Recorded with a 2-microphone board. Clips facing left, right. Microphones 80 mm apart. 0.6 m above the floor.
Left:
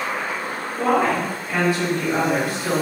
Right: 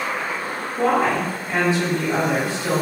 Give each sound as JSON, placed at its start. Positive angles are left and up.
{"t": 0.8, "sound": "a woman speaking", "side_deg": -25, "distance_m": 1.5}